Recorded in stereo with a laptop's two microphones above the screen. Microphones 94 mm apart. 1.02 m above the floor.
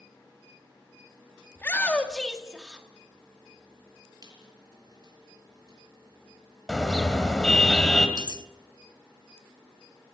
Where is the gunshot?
No gunshot in this recording.